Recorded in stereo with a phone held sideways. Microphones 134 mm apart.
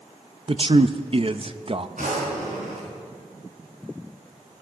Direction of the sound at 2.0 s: 70° right (ahead or behind).